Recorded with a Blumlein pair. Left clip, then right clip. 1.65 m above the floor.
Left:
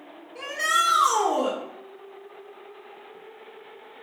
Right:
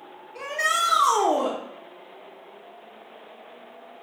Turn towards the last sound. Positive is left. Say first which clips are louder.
# even
turn(degrees=-25)